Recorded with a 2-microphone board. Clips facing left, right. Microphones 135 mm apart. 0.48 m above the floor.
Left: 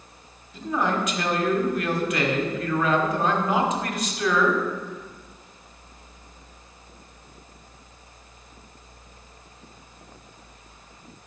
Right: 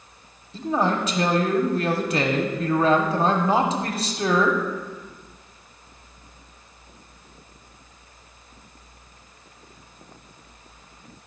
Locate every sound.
0.5 s a man speaking: 30° right (ahead or behind), 0.8 m